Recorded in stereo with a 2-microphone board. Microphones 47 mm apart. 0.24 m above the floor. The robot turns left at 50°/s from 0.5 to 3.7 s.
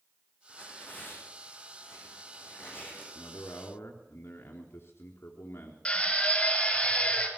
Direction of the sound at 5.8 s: 25° left (ahead or behind).